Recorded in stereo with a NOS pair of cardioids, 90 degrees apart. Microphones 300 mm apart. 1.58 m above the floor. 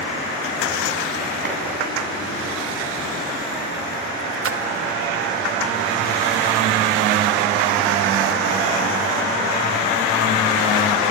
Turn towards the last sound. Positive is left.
turn(degrees=-45)